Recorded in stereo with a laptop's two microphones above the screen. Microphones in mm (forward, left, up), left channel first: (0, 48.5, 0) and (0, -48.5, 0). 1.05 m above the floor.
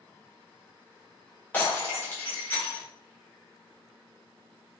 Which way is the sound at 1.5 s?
20° left (ahead or behind).